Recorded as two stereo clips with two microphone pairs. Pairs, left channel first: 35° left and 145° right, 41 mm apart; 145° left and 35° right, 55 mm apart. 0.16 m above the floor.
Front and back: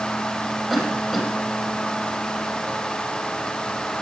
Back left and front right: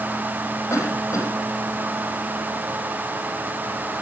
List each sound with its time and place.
0.7 s a cough: 120° left, 5.5 m